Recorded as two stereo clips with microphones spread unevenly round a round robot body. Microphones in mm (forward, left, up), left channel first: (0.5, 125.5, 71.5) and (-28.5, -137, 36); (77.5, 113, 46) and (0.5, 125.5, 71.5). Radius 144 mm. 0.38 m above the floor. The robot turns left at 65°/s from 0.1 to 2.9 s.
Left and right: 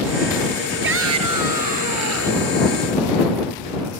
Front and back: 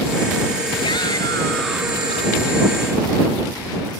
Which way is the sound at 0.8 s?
45° right.